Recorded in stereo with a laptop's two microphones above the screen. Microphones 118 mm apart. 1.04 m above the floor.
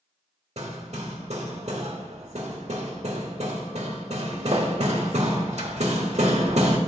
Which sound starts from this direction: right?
Hammering, at 0.6 s.